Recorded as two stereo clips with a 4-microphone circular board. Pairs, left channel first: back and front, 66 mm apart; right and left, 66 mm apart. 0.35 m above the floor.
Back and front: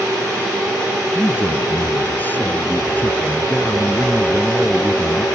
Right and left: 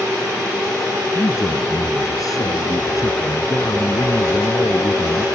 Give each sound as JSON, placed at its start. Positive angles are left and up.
{"t": 1.1, "sound": "a man speaking", "azimuth_deg": -115}